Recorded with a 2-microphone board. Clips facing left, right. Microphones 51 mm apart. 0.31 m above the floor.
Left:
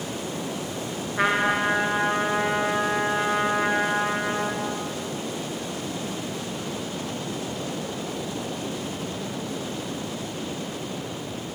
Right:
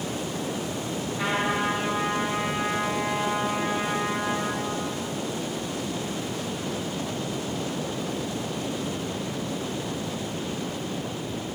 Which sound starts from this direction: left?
A trumpet, at 1.2 s.